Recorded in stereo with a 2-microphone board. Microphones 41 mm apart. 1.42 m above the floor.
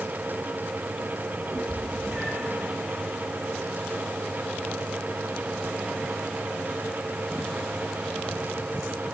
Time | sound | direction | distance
1.5 | a cat meowing | 10° right (ahead or behind) | 3 m